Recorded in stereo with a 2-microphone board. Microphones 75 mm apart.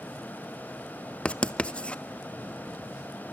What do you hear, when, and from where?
1.2 s writing: 15° left (ahead or behind), 0.6 m